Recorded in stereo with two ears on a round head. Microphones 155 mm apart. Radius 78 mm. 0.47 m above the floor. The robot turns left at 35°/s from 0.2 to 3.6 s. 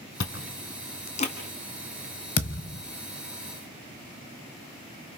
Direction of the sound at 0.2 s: 70° left (ahead or behind).